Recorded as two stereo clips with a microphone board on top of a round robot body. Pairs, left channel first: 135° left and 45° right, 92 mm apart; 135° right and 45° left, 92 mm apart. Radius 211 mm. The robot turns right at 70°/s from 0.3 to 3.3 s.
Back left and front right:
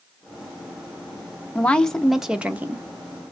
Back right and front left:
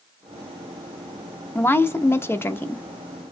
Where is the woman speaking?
175° right, 0.7 m; by 2.9 s 80° right, 0.7 m.